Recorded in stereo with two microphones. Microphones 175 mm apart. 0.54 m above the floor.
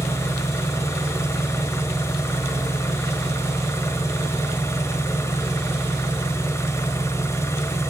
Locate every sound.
0.0 s an engine running: 15° left (ahead or behind), 1.3 m